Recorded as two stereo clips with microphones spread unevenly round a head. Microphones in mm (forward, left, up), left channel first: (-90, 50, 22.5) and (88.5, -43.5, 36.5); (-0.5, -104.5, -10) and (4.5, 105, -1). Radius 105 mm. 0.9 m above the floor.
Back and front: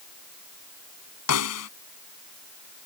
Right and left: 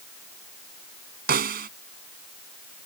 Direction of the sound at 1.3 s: 135° left.